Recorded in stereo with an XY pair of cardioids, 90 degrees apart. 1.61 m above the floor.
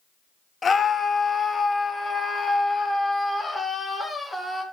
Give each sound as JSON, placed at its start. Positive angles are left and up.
{"t": 0.6, "sound": "a scream", "azimuth_deg": 40, "distance_m": 2.0}